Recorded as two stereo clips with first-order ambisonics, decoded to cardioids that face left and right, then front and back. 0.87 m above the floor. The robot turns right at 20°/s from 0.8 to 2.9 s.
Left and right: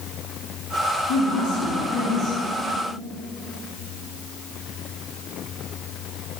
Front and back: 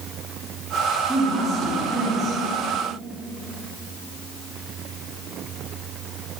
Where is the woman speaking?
105° left, 0.7 m; by 2.4 s 130° left, 0.7 m.